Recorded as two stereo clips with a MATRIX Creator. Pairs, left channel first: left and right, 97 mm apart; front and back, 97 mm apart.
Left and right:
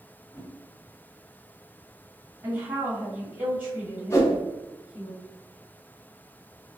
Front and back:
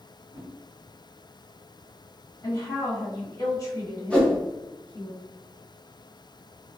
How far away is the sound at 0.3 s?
About 1.6 m.